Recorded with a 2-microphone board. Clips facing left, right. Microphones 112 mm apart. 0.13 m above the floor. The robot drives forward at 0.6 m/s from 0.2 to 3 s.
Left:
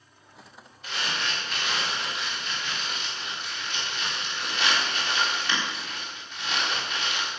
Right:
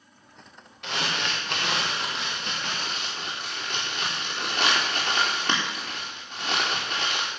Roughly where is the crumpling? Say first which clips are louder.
Right 2 dB; right.